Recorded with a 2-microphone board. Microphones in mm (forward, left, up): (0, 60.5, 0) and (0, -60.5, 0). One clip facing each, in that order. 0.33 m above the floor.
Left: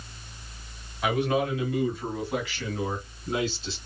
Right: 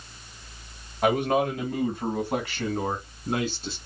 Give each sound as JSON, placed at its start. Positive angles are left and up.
{"t": 1.0, "sound": "a man speaking", "side_deg": -50, "distance_m": 2.5}